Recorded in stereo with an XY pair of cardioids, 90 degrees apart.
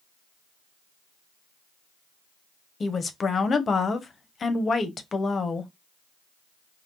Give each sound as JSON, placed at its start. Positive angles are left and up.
{"t": 2.8, "sound": "a woman speaking", "azimuth_deg": 45, "distance_m": 1.0}